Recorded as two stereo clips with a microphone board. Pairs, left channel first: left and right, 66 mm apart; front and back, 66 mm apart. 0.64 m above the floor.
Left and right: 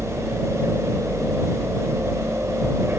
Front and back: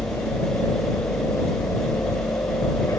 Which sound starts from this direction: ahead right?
A helicopter, at 0.0 s.